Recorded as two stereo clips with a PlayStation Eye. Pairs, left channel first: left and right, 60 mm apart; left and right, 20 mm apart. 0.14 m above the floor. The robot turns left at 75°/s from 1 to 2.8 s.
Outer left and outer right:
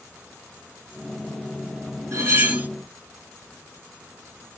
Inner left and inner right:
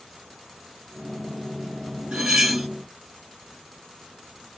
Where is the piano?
No piano in this recording.